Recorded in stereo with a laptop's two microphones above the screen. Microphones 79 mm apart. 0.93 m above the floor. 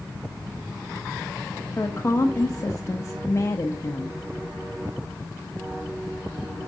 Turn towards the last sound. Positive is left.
turn(degrees=35)  # may be behind; listen again after turning